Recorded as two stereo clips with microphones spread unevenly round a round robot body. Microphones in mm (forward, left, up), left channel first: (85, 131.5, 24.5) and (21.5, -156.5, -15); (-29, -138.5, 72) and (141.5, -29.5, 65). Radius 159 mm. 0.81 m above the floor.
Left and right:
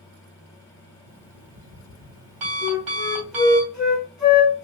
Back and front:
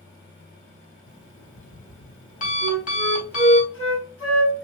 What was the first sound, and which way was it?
An alarm clock, 100° right.